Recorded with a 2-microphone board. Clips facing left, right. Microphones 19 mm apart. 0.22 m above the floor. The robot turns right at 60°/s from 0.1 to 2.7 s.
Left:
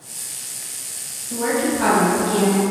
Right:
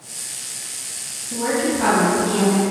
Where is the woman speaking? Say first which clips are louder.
Even; 120° left, 1.7 m; by 2.6 s 160° right, 1.7 m.